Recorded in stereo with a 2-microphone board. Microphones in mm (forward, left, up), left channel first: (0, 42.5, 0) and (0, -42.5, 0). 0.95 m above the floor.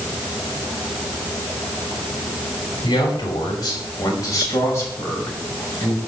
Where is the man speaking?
55° left (ahead or behind), 5 m; by 6.0 s 20° left (ahead or behind), 5 m.